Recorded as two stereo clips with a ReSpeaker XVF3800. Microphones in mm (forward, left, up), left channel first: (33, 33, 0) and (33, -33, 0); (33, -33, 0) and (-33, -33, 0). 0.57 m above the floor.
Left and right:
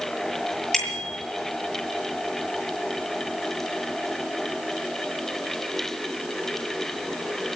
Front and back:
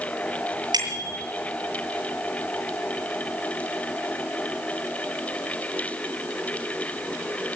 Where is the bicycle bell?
175° left, 8 m.